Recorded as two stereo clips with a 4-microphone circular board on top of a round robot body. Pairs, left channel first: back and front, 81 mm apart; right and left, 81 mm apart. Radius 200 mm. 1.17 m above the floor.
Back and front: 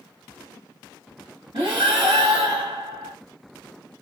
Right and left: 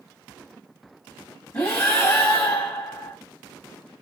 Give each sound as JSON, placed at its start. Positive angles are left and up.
{"t": 1.5, "sound": "breathing", "azimuth_deg": -25, "distance_m": 1.0}